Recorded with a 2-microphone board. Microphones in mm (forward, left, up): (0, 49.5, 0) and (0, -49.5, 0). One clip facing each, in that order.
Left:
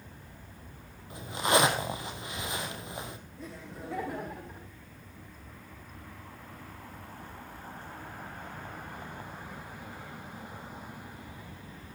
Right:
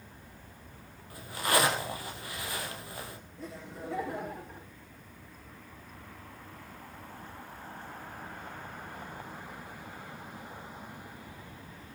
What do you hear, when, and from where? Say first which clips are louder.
1.1 s a zipper: left 3 dB; 20° left (ahead or behind), 3 m
3.4 s laughter: right 2 dB; centre (ahead or behind), 6.5 m